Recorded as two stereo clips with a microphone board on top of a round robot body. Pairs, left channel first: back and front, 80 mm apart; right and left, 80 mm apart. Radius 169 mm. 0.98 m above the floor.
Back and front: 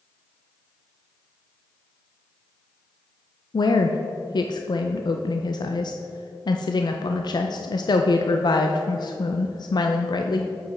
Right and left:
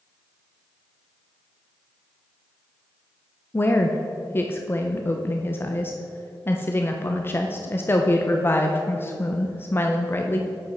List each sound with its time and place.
3.5 s a woman speaking: 150° right, 0.6 m